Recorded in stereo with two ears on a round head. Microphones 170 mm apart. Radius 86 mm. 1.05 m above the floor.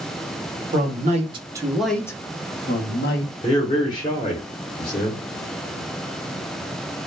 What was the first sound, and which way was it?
A man speaking, 45° right (ahead or behind).